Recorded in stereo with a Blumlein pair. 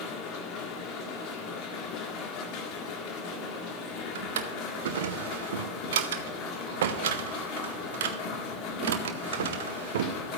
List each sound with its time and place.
0.0 s a machine running: 35° left, 1.6 m
4.2 s a drawer: 60° right, 0.7 m